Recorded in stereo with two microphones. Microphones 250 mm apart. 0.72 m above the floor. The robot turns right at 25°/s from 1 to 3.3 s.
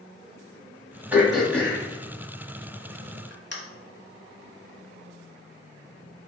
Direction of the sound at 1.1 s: 5° right (ahead or behind).